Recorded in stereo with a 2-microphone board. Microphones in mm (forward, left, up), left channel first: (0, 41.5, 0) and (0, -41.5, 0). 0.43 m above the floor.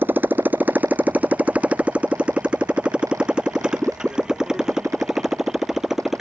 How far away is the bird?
No bird in this recording.